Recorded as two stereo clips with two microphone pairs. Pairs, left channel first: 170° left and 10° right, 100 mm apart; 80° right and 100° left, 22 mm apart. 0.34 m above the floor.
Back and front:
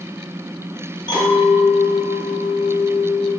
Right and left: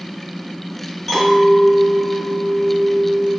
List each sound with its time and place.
1.1 s a clink: 175° right, 1.1 m